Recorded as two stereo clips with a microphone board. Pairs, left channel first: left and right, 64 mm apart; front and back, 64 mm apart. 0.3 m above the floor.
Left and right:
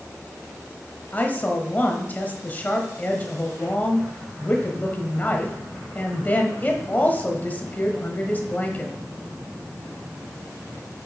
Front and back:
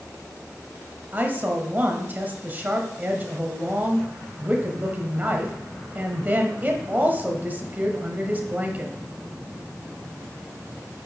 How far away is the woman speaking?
About 1.1 m.